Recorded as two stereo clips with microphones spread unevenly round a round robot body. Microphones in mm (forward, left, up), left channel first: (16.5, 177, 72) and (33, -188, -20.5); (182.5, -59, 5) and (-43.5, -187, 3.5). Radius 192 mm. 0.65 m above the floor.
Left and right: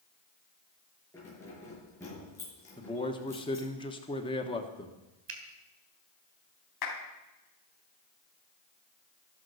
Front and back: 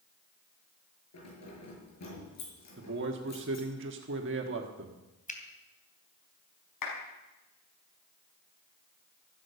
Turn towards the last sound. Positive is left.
turn(degrees=50)